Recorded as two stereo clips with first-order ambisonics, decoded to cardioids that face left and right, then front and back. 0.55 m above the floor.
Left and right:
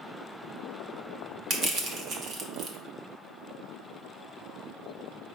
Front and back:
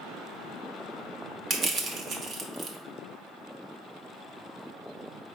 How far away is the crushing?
About 0.9 m.